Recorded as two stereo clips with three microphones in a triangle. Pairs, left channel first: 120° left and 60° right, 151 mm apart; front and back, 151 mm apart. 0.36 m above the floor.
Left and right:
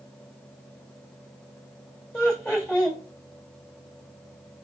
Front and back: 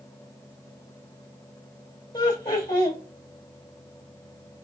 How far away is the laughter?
About 1.0 m.